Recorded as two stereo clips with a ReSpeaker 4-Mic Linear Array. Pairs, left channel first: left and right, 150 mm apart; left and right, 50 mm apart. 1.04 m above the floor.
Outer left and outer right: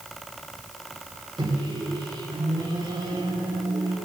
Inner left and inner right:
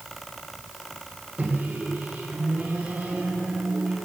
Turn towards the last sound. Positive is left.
turn(degrees=-30)  # may be behind; listen again after turning